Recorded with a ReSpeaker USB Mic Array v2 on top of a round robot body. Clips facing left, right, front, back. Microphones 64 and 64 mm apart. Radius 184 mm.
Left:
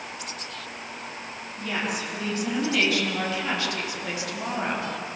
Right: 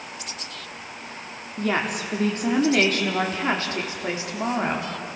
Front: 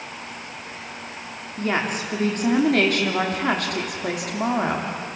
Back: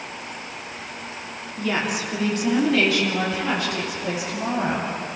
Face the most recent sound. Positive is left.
turn(degrees=-20)